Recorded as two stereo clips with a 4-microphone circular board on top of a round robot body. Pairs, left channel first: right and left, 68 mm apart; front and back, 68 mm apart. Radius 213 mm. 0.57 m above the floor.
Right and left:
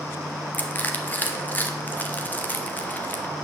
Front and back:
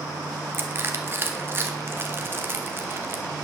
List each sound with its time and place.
0.5 s crushing: 140° right, 1.4 m